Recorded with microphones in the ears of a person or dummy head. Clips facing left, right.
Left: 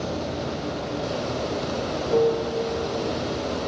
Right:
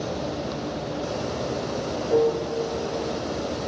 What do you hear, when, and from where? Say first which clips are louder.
0.0 s running water: even; 15° right (ahead or behind), 2 m